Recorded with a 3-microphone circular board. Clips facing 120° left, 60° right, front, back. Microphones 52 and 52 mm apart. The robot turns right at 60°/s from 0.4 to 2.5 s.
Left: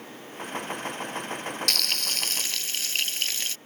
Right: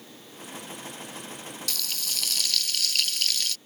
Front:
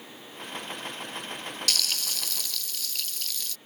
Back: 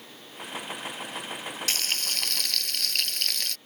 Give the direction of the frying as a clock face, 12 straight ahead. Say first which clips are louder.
Left 6 dB, even; 8 o'clock.